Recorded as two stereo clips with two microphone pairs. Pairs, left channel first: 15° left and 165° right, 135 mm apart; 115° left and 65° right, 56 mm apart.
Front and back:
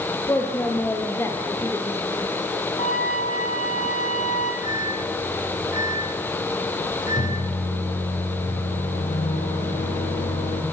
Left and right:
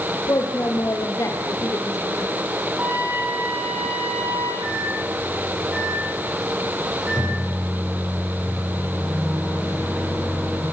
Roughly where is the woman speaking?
Left.